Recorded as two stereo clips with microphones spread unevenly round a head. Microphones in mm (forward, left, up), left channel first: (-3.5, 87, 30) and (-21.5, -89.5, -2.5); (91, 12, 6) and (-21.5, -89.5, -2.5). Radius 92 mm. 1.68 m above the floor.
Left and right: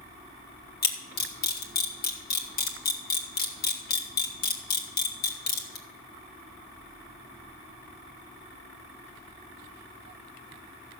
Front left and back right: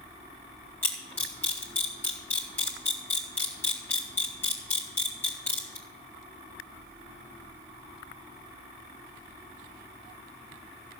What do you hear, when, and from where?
0.8 s a camera shutter: 120° left, 2.5 m